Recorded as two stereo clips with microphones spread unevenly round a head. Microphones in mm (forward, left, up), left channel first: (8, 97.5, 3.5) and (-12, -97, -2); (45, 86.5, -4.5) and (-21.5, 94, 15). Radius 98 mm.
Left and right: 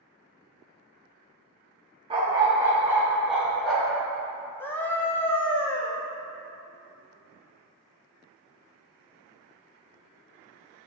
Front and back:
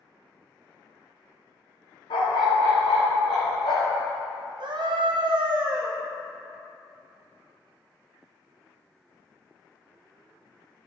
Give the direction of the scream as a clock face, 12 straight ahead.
7 o'clock.